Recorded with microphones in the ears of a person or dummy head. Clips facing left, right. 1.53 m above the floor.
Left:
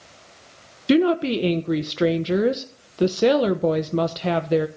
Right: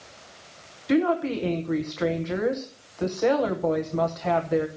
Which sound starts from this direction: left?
A woman speaking, at 0.9 s.